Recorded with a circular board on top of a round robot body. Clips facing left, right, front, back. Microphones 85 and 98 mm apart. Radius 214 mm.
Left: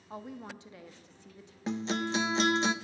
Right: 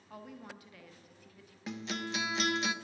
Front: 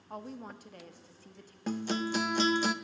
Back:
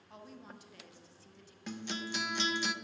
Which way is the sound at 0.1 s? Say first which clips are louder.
Left 5 dB, front 8 dB; 30° left.